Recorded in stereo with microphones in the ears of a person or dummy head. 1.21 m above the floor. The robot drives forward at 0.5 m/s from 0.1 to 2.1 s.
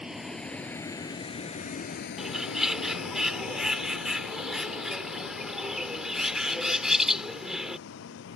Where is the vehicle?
5° right (ahead or behind); by 8.4 s 65° left (ahead or behind).